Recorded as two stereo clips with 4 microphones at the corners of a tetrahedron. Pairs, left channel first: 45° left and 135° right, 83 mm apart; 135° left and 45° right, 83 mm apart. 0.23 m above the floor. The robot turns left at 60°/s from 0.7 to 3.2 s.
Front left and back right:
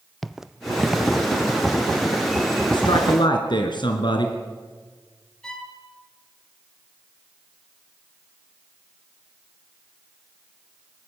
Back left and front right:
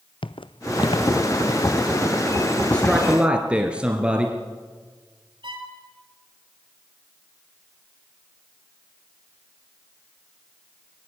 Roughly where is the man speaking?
Ahead left.